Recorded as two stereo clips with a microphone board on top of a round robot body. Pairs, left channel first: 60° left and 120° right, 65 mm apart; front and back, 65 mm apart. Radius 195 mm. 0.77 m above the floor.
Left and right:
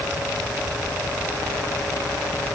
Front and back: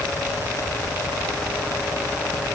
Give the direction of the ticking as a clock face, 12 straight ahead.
No ticking in this recording.